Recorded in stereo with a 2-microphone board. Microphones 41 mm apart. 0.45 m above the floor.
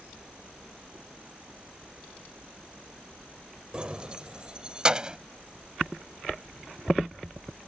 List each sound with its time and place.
3.7 s keys jangling: 25° right (ahead or behind); by 5.2 s 20° right (ahead or behind)